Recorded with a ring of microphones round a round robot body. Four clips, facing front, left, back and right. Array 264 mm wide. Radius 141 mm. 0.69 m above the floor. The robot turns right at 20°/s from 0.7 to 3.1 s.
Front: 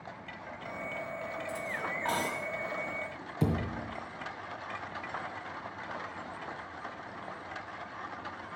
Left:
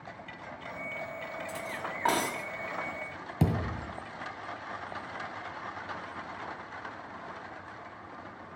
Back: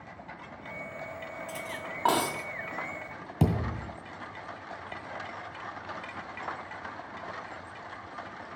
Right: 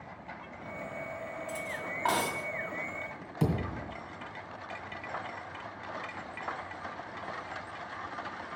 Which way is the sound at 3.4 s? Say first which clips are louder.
Left 1 dB, back 3 dB; 145° left.